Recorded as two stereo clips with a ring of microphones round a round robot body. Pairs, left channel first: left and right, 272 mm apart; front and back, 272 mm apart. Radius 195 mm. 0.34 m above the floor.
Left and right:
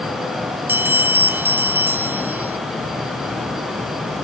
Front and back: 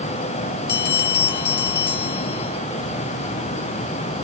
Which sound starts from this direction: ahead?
A bell, at 0.7 s.